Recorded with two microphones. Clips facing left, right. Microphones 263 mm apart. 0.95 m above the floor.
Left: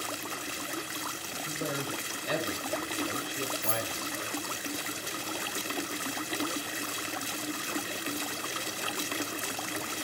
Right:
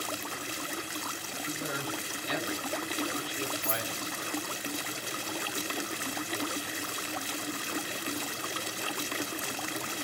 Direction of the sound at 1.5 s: 60° left (ahead or behind).